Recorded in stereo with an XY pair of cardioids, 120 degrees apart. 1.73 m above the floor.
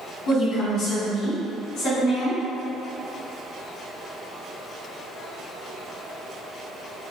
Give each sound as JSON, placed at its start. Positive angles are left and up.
{"t": 0.3, "sound": "a woman speaking", "azimuth_deg": 60, "distance_m": 1.4}